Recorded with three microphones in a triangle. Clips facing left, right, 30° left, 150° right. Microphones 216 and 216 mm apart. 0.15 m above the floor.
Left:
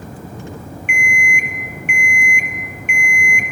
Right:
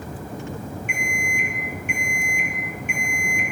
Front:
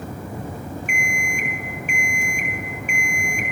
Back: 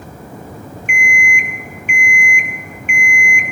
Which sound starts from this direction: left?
An alarm clock, at 0.9 s.